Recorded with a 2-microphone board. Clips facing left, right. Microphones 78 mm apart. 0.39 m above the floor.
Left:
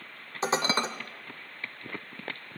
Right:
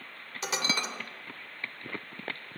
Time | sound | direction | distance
0.4 | dishes clattering | 35° left (ahead or behind) | 0.8 m